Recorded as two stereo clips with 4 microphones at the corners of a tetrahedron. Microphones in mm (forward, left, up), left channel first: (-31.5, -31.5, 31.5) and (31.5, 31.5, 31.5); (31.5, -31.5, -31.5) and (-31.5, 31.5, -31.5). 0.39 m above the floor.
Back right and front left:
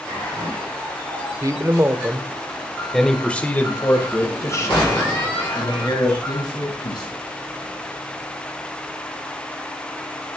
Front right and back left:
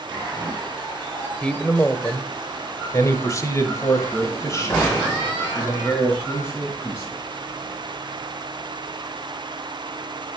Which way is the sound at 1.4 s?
30° left.